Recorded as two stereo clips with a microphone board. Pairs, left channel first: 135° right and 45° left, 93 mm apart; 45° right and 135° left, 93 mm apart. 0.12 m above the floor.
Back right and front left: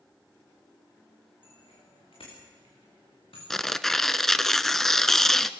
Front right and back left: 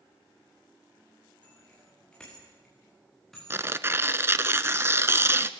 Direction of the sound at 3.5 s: 140° left.